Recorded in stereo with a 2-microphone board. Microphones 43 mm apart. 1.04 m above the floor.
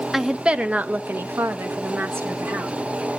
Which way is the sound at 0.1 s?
5° right (ahead or behind).